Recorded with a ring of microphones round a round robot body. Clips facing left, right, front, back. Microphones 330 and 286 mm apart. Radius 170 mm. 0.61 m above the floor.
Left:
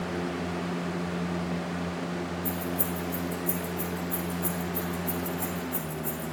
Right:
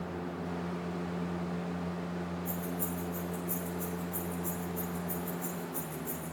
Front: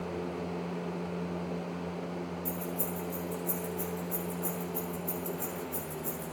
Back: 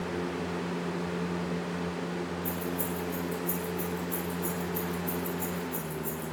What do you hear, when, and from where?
2.5 s keys jangling: 85° left, 8.5 m